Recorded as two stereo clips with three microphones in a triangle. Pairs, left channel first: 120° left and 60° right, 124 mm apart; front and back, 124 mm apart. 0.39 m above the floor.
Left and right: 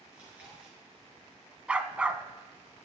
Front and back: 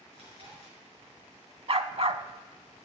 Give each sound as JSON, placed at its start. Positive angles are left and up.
{"t": 0.1, "sound": "chewing", "azimuth_deg": -140, "distance_m": 6.0}
{"t": 1.7, "sound": "a dog barking", "azimuth_deg": -140, "distance_m": 0.7}